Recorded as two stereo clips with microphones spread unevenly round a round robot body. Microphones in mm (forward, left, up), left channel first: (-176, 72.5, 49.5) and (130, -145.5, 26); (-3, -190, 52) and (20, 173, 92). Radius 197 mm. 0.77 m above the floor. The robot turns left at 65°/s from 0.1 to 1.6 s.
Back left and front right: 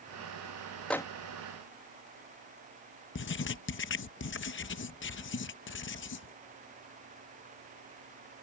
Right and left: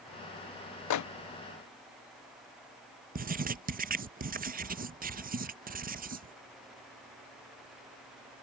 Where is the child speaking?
I don't hear a child speaking.